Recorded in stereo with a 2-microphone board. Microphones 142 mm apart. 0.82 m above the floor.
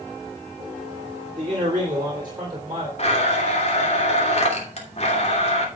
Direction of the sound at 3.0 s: 50° left (ahead or behind).